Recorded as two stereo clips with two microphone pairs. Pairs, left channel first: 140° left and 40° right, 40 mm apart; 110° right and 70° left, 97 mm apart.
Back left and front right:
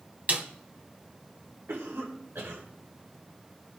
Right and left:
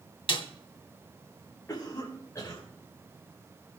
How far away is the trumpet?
I don't hear a trumpet.